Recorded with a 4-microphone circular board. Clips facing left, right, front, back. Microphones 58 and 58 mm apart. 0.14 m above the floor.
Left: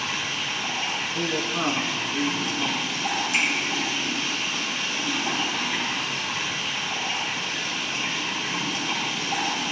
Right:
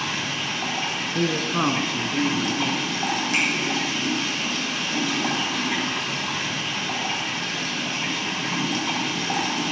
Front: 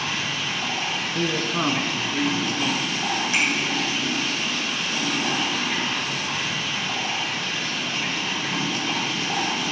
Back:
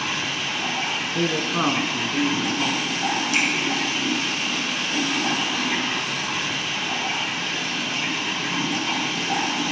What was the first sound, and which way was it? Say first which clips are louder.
Running water: right 1 dB, back 1 dB; 95° right.